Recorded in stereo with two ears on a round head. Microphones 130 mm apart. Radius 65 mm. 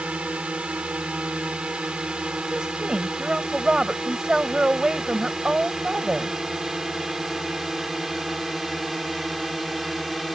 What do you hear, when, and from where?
0.0 s a drone: 10° right (ahead or behind); by 10.3 s centre (ahead or behind)
2.5 s a woman speaking: 5° right (ahead or behind)